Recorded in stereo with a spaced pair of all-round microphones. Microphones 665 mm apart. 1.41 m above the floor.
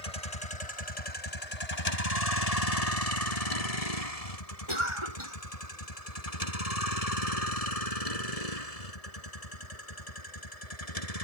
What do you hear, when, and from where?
0.0 s a vehicle: 65° left (ahead or behind); by 11.2 s 60° left (ahead or behind)
4.7 s a cough: 45° right (ahead or behind)